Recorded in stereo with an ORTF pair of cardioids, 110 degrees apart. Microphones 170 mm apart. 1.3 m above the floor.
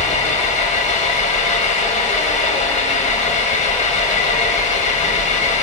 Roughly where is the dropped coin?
I don't hear a dropped coin.